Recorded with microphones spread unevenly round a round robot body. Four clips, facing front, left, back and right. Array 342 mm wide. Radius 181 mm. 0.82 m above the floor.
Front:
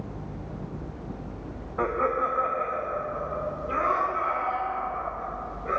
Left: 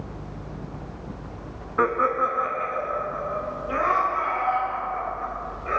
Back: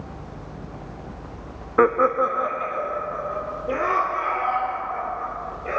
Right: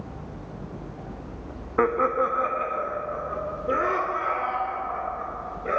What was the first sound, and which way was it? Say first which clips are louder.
Laughter: even, back 8 dB; 165° right.